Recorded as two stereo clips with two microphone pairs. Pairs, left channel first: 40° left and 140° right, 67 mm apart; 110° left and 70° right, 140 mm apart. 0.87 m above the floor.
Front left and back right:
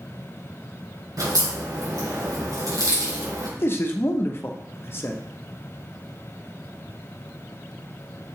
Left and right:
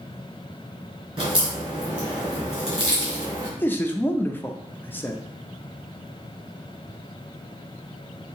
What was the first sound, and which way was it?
A crack, 130° right.